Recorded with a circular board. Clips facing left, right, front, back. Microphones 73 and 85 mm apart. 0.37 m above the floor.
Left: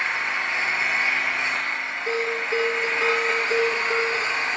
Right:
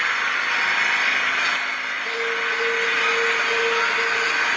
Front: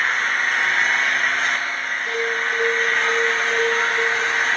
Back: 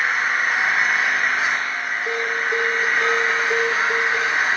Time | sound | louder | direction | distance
0.0 | an engine running | right 3 dB, back 1 dB | 100° right | 5 m
2.1 | a bell | even, even | 170° left | 9 m